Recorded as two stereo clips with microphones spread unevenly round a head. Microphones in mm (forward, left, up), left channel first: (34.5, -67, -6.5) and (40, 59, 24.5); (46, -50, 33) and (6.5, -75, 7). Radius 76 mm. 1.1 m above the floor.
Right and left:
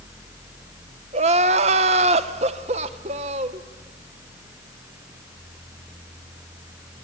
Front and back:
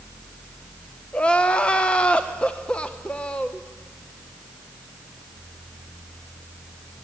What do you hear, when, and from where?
1.1 s crying: 130° left, 0.8 m